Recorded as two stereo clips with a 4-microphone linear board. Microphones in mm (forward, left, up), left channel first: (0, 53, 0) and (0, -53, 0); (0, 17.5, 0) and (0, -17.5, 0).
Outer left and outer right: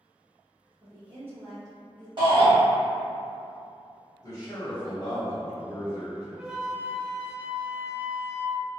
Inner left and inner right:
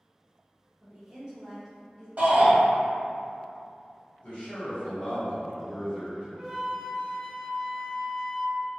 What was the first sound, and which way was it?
A woman speaking, 50° right (ahead or behind).